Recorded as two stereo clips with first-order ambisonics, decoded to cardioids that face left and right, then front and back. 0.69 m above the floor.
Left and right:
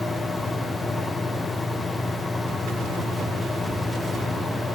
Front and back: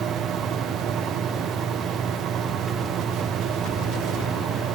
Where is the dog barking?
I don't hear a dog barking.